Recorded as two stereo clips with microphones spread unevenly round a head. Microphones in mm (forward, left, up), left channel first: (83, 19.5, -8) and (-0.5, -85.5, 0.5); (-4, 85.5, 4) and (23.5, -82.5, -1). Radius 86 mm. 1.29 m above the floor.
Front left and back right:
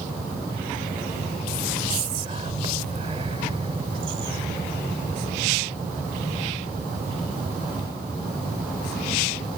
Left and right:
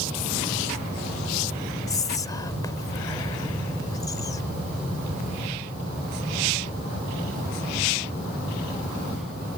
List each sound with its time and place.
1.9 s whispering: 170° left